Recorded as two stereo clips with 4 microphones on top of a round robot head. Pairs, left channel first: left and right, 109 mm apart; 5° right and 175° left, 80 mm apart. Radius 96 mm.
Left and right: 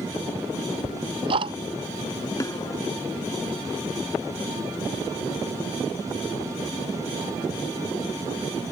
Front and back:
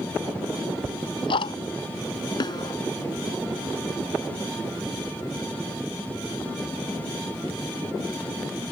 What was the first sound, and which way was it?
Ticking, 40° right.